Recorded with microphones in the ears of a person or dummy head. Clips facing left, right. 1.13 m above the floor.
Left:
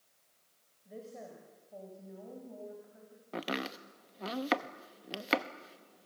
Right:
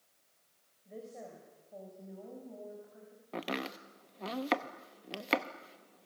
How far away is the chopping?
About 0.7 m.